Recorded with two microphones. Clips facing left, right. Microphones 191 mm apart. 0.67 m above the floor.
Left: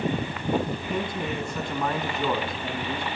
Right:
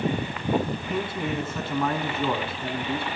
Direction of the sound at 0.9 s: 5° right (ahead or behind).